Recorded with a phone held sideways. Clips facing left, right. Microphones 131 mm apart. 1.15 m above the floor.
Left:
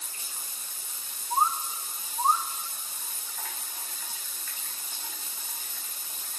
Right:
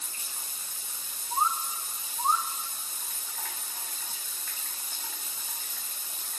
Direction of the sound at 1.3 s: 35° left (ahead or behind).